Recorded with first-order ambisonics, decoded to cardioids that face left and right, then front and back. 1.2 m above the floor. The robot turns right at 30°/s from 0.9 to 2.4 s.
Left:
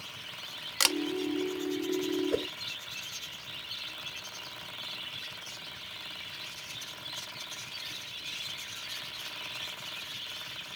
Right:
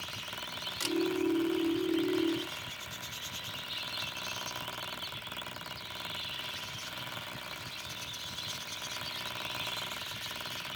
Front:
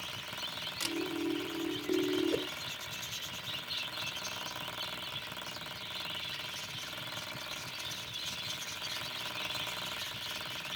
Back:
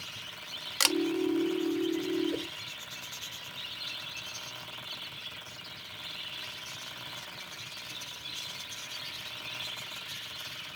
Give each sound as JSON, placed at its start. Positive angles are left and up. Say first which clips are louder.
{"t": 0.8, "sound": "a camera shutter", "louder": "left 8 dB, back 12 dB", "azimuth_deg": 140}
{"t": 2.3, "sound": "a whoosh", "louder": "left 5 dB, front 2 dB", "azimuth_deg": 75}